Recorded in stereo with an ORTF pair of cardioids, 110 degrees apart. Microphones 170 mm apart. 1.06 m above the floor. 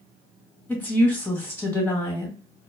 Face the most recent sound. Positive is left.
turn(degrees=10)